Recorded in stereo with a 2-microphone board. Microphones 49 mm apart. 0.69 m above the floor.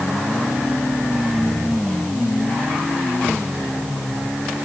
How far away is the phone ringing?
I don't hear a phone ringing.